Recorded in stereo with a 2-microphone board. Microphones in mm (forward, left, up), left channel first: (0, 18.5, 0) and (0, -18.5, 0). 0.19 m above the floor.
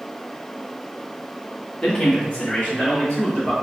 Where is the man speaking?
25° left (ahead or behind), 1.1 m; by 3.5 s 35° left (ahead or behind), 3 m.